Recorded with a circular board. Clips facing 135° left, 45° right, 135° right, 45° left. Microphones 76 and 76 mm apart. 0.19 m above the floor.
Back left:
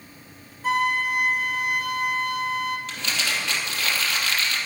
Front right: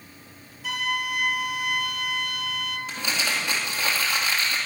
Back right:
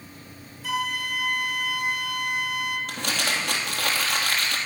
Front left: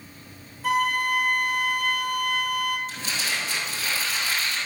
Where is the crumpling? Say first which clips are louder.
Even, back right 3 dB; 120° right, 3.5 m.